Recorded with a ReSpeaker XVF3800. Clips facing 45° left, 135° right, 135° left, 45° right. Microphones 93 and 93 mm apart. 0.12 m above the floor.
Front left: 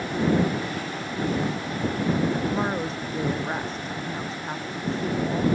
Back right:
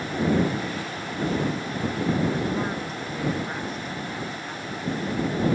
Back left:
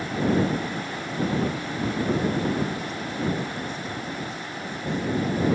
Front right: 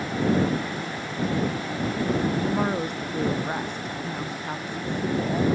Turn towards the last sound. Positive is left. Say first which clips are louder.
# front left 2 dB, front right 3 dB
turn(degrees=-15)